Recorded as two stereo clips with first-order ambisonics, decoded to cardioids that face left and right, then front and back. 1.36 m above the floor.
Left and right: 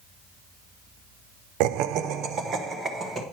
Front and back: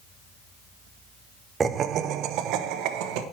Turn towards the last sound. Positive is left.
turn(degrees=-160)